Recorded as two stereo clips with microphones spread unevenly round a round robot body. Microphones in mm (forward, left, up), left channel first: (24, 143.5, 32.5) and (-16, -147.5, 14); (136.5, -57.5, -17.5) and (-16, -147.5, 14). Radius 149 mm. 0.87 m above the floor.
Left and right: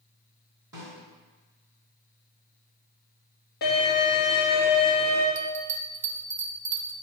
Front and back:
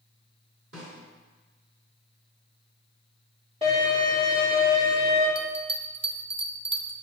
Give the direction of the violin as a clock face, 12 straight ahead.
7 o'clock.